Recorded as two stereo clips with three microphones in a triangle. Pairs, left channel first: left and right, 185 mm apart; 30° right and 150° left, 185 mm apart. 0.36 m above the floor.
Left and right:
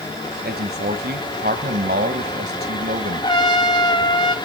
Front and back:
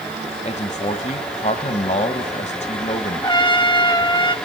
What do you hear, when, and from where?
0.5 s a man speaking: 75° right, 1.7 m
3.2 s a trumpet: 30° left, 1.3 m